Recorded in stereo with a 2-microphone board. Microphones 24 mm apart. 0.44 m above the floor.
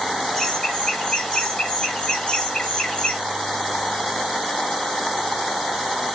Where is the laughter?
25° left (ahead or behind), 4 m; by 3.2 s 35° left (ahead or behind), 2.5 m.